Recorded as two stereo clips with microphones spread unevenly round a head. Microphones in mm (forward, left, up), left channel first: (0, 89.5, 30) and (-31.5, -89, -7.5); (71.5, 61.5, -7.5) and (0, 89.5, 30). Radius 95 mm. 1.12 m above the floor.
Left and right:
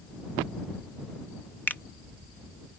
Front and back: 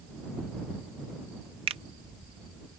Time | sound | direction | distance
1.7 | a finger snap | 165° left | ?